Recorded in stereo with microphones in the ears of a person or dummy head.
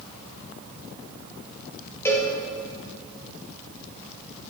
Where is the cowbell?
10° left (ahead or behind), 2 m.